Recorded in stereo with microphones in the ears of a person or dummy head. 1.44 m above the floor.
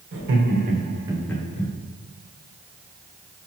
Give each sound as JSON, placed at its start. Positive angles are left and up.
{"t": 0.1, "sound": "laughter", "side_deg": -60, "distance_m": 1.1}